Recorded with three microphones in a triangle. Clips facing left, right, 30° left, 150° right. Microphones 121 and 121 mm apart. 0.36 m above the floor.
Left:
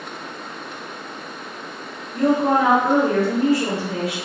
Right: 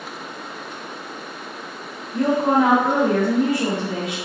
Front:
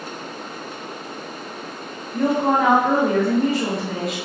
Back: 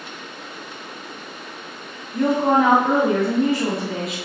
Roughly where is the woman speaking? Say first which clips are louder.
Even, back 1 dB; ahead right.